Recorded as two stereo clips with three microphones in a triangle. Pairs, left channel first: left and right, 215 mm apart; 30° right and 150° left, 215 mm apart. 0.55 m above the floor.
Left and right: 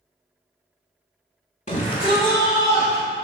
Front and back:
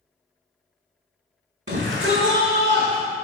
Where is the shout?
140° left, 1.5 m; by 3.0 s 170° left, 1.9 m.